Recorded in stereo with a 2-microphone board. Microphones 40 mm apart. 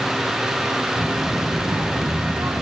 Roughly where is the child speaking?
Right.